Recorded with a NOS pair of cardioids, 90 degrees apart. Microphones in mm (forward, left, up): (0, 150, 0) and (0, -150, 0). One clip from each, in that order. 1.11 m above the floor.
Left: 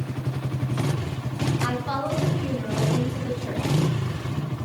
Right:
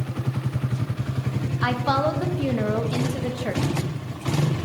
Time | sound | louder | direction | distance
1.6 | a woman speaking | right 8 dB | 55° right | 0.8 m